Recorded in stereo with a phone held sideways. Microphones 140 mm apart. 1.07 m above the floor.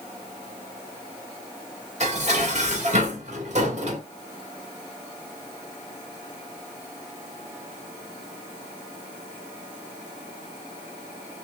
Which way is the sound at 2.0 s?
55° right (ahead or behind).